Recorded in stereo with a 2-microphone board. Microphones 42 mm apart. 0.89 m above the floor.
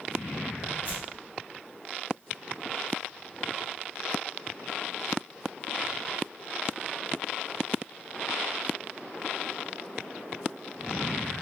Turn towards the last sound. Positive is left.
turn(degrees=40)  # may be behind; listen again after turning